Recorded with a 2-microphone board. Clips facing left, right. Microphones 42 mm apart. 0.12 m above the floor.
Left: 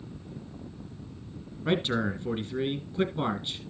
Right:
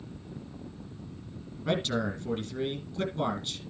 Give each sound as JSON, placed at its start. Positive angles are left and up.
{"t": 1.6, "sound": "a man speaking", "side_deg": 20, "distance_m": 1.9}